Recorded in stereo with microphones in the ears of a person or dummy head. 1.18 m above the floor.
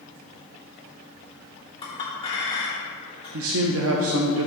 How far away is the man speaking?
About 0.6 m.